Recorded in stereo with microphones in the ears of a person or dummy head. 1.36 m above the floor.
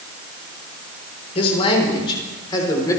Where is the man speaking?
40° left (ahead or behind), 4 m; by 3.0 s 20° left (ahead or behind), 4 m.